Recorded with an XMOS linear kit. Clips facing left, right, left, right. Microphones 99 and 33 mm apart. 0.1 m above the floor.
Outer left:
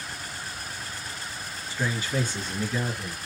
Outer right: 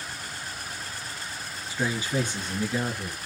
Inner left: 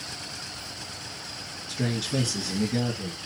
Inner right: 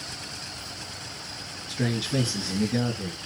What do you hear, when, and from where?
1.7 s a man speaking: 15° right (ahead or behind), 1.6 m